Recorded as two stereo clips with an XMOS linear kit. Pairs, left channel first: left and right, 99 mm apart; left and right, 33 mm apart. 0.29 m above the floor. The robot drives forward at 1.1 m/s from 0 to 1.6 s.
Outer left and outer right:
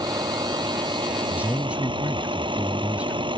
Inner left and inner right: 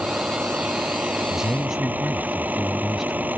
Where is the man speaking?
15° right (ahead or behind).